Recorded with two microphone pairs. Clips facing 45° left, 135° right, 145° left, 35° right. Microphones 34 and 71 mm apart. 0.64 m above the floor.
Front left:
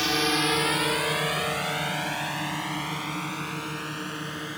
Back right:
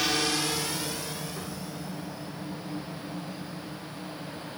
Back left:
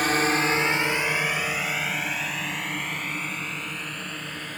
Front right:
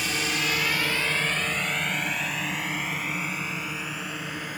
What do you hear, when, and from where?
0.0 s a drone: 130° left; by 4.6 s 45° left